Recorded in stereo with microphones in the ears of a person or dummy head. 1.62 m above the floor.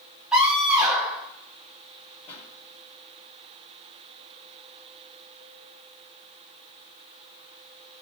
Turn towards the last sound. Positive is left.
turn(degrees=35)  # may be behind; listen again after turning